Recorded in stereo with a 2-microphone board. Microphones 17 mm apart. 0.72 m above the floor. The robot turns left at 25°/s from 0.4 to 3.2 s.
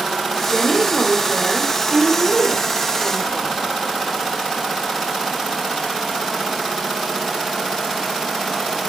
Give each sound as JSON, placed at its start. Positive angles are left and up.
{"t": 0.5, "sound": "a woman speaking", "azimuth_deg": 40, "distance_m": 1.9}